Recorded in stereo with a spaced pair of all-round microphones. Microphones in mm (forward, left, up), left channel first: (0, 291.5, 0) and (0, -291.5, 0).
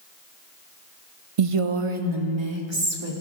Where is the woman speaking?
65° right (ahead or behind), 0.6 m; by 3.1 s 45° right (ahead or behind), 2.5 m.